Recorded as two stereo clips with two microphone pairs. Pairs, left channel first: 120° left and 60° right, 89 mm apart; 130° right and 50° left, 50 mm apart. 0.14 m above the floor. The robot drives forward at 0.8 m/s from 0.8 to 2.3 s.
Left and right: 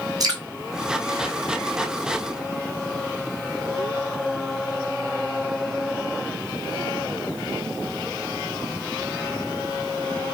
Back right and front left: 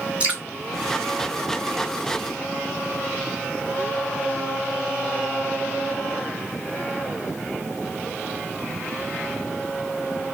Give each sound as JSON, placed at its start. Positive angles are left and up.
{"t": 0.2, "sound": "dripping", "azimuth_deg": -15, "distance_m": 1.7}